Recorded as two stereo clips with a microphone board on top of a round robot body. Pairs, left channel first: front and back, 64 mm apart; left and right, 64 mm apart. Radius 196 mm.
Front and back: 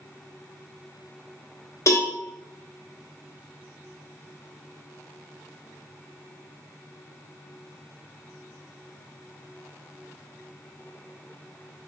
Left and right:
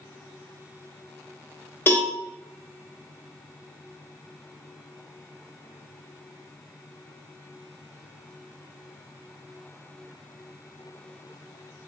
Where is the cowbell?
35° left, 1.4 m.